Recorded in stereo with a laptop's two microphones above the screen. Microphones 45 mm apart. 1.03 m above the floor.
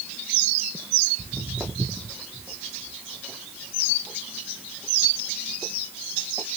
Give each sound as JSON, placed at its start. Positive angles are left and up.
{"t": 1.2, "sound": "footsteps", "side_deg": -30, "distance_m": 1.7}